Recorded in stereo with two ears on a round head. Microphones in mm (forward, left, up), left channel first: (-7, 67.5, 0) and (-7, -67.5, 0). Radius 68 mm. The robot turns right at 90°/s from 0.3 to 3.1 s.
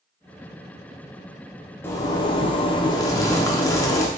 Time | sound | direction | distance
1.8 | a zipper | 25° left | 0.5 m